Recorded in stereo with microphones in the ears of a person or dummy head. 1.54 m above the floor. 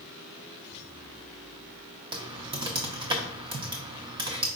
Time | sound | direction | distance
2.1 | typing on a keyboard | 20° right (ahead or behind) | 0.5 m